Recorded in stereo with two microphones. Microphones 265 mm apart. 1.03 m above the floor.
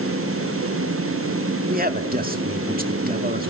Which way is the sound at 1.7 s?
35° right (ahead or behind).